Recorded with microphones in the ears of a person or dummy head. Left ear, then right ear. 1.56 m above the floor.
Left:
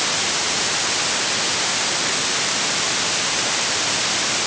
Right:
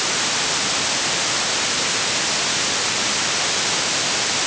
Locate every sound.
Only background noise.